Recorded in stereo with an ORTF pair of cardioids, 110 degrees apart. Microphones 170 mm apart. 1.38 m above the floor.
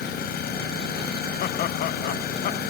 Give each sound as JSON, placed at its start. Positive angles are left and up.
{"t": 0.0, "sound": "an engine running", "azimuth_deg": 70}
{"t": 1.4, "sound": "laughter", "azimuth_deg": 60}